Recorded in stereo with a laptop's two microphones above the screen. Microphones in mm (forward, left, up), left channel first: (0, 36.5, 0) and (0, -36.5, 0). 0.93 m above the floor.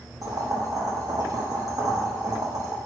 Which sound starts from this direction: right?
Boiling, at 0.2 s.